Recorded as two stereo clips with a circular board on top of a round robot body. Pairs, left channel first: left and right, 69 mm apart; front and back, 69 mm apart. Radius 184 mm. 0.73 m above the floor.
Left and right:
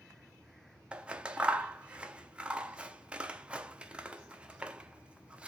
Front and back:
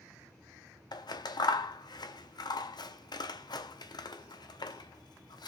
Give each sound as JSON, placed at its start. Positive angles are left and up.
{"t": 0.9, "sound": "scissors", "azimuth_deg": -15, "distance_m": 1.0}